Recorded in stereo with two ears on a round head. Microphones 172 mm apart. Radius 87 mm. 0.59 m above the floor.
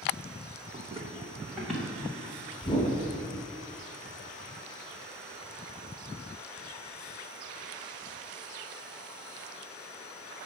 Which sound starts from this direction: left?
A whoosh, at 2.6 s.